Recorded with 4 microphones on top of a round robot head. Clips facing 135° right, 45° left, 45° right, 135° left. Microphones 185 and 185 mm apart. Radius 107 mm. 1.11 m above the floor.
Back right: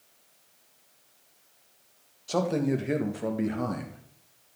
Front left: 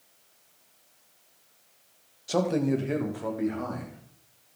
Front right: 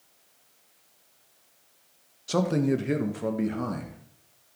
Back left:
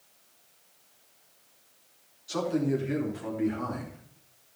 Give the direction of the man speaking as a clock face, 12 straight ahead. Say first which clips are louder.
Front left 1 dB, front right 3 dB; 1 o'clock.